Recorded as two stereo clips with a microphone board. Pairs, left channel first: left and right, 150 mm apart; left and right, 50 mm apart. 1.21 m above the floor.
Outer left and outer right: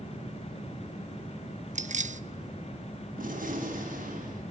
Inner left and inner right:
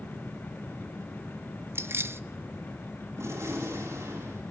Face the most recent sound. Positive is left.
turn(degrees=-70)  # may be behind; listen again after turning